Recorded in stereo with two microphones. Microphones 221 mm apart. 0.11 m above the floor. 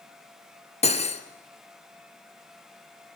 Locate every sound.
0.8 s cutlery clinking: 30° left (ahead or behind), 1.4 m